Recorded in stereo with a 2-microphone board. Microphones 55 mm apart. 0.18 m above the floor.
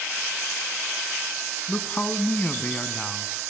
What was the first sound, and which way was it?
A man speaking, 25° left (ahead or behind).